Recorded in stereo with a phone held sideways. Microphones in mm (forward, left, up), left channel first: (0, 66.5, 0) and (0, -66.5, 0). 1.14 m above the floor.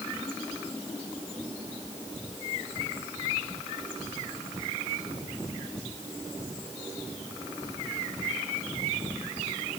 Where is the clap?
No clap in this recording.